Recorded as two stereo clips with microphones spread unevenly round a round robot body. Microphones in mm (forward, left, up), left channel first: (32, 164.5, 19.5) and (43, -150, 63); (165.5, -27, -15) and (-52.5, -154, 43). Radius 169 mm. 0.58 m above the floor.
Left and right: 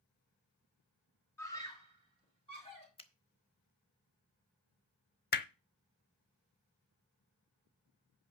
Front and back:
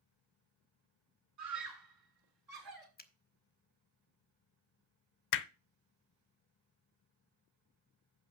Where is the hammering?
30° left, 0.7 m.